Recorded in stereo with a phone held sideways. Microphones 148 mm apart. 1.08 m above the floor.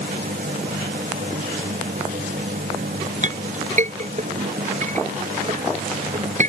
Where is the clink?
55° right (ahead or behind).